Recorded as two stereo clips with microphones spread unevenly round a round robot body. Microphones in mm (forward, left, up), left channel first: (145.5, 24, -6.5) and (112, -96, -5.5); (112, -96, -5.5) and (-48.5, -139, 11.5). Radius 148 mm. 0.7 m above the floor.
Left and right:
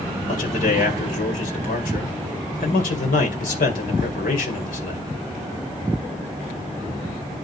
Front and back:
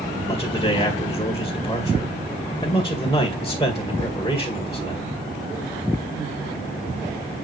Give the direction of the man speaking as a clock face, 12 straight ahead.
9 o'clock.